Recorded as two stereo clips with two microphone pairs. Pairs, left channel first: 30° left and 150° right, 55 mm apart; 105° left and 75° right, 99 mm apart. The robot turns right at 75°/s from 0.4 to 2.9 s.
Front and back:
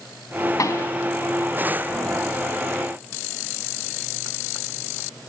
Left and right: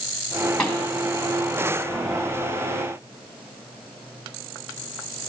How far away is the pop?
About 3 m.